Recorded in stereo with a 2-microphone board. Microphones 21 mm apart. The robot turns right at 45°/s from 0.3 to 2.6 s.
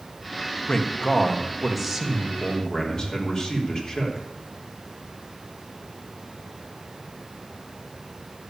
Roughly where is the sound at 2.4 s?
Left.